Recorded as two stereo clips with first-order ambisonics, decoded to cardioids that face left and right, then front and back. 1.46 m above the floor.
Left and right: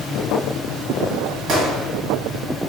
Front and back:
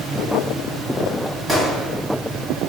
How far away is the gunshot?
About 1.6 m.